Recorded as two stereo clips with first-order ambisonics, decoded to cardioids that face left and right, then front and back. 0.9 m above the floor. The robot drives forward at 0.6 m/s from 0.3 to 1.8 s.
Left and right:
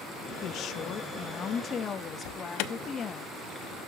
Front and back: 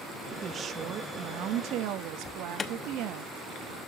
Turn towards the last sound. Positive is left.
turn(degrees=70)